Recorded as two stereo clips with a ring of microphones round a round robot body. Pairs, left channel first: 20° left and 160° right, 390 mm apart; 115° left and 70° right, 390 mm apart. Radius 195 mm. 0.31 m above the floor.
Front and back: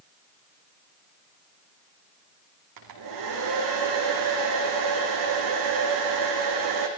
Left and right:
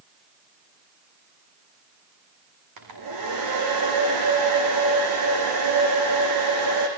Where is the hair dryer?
115° right, 5.5 m.